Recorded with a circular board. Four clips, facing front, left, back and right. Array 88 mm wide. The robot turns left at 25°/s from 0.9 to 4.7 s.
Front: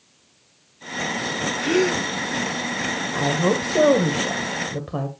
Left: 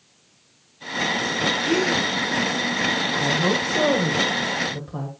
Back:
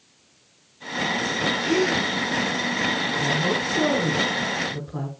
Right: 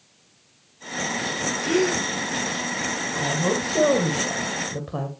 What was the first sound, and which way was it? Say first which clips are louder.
A gasp: right 2 dB, front 3 dB; 25° left.